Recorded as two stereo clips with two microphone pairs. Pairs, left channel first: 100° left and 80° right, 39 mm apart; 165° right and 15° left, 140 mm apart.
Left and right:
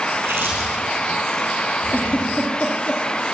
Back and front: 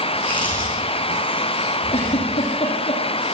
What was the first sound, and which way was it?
Chewing, 85° right.